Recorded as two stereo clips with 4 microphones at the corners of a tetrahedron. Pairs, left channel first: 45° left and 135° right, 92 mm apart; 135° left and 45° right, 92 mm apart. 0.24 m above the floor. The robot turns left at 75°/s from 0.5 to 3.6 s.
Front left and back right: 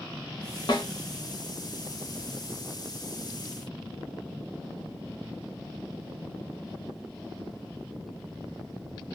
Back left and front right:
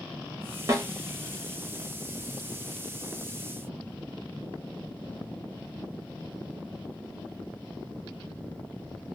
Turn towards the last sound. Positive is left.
turn(degrees=150)